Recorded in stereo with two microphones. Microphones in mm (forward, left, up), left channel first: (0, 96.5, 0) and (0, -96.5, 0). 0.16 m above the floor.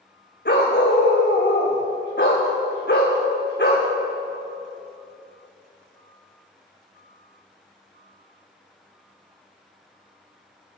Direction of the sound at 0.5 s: 60° left (ahead or behind).